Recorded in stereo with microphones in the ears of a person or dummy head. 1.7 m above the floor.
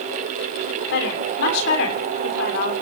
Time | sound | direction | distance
0.9 | a woman speaking | 70° left (ahead or behind) | 6.5 m